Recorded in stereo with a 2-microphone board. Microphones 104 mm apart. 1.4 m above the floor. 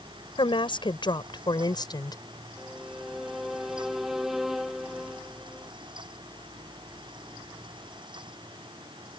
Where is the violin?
5° right (ahead or behind).